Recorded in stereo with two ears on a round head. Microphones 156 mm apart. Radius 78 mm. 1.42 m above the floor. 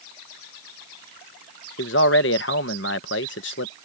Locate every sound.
1.8 s a man speaking: 75° left (ahead or behind)